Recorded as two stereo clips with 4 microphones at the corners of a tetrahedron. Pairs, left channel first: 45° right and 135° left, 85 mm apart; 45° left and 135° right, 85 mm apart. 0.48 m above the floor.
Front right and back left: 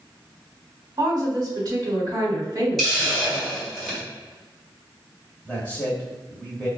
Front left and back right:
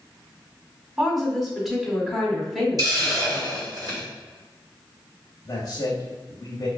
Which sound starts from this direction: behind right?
A hiss, at 2.8 s.